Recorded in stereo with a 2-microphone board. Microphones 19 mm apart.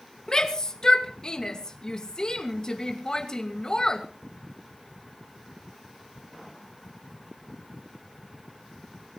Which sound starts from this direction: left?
A shout, at 0.3 s.